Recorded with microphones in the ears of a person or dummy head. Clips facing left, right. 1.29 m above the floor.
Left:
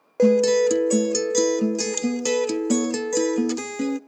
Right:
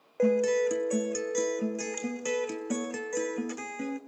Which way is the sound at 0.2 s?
55° left (ahead or behind).